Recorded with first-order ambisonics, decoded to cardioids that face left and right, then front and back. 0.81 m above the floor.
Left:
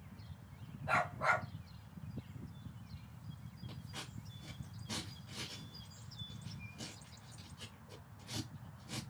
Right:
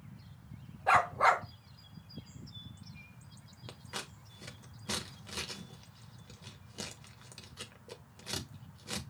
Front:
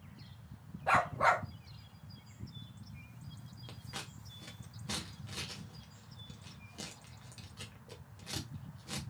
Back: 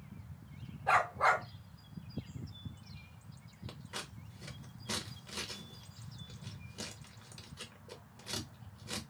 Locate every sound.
0.9 s a dog barking: 80° right, 1.2 m
3.7 s scissors: 90° right, 1.0 m